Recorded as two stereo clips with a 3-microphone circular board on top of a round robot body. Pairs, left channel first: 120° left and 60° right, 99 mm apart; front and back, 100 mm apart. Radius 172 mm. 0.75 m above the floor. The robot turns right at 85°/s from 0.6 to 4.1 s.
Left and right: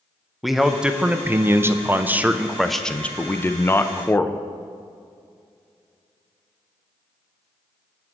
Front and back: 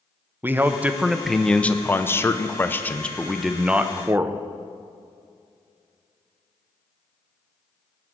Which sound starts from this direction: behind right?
A man speaking, at 0.4 s.